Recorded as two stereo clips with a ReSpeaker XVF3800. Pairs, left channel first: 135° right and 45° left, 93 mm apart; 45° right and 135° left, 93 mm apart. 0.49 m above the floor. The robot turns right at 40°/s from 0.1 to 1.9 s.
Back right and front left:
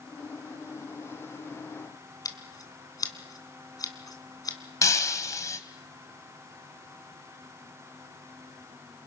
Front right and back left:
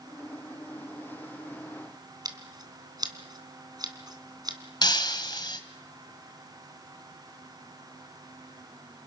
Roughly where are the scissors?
Behind.